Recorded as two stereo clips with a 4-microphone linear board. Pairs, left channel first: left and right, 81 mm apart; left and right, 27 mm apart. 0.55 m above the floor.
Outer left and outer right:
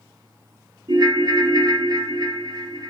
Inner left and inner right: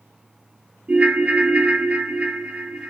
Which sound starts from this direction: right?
A ringtone, at 0.9 s.